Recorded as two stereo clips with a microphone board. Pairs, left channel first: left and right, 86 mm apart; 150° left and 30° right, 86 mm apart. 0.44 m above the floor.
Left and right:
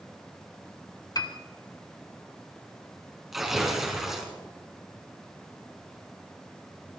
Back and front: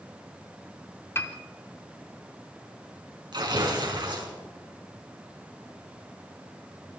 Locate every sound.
1.1 s a piano: 100° left, 1.9 m
3.3 s tearing paper: 5° right, 5 m